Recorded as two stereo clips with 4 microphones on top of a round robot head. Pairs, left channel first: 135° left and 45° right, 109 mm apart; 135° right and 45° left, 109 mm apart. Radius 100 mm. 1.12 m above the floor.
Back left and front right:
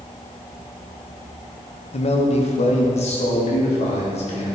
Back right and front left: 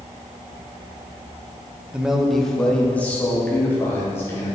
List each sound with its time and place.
1.9 s a man speaking: 125° left, 1.3 m; by 4.6 s 155° left, 4 m